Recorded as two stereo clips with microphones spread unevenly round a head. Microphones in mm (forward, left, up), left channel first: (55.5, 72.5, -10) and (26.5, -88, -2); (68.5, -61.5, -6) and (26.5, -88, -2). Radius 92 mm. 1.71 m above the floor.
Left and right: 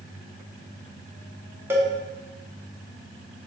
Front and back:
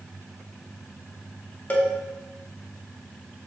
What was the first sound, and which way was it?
A cowbell, 25° right.